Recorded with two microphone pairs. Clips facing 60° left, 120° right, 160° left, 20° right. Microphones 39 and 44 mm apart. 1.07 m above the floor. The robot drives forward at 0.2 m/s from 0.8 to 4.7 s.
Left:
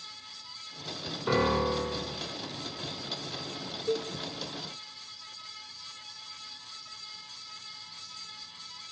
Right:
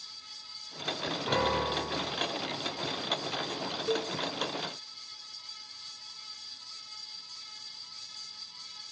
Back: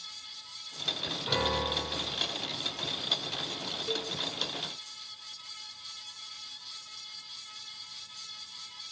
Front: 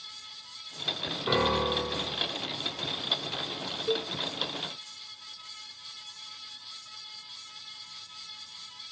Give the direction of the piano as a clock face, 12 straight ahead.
11 o'clock.